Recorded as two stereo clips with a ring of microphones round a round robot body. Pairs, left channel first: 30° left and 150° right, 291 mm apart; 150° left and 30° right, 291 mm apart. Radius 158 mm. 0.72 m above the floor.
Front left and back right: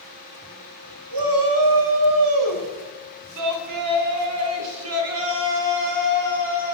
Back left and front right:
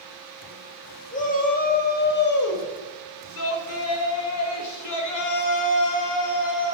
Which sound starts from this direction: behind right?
A shout, at 1.1 s.